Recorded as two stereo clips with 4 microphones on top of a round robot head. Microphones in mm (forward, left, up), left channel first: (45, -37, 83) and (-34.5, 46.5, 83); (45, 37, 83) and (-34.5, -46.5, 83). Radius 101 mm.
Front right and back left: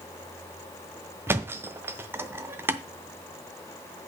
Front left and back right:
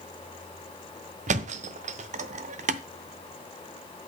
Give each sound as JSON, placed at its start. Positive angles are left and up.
{"t": 1.3, "sound": "a thud", "azimuth_deg": -155, "distance_m": 0.6}